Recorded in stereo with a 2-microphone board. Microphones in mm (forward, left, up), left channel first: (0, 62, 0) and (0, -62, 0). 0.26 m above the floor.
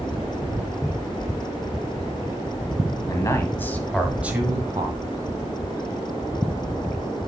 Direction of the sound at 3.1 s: 30° left (ahead or behind).